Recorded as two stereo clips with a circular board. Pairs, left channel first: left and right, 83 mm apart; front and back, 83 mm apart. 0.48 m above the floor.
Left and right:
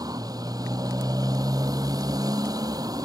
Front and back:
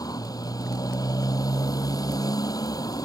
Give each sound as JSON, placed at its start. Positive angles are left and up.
{"t": 0.0, "sound": "a motorcycle", "azimuth_deg": -45}